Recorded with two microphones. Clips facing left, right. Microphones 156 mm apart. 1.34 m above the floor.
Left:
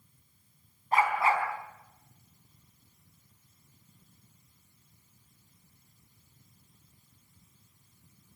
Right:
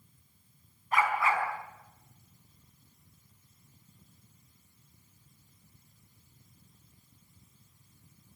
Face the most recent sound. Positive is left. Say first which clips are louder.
# left 2 dB
turn(degrees=30)  # may be behind; listen again after turning